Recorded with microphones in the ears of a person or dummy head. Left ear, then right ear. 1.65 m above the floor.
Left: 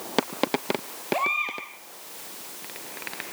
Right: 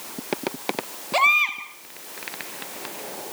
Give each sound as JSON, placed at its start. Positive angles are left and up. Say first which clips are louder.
{"t": 1.1, "sound": "a baby crying", "louder": "right 7 dB", "side_deg": -45, "distance_m": 5.0}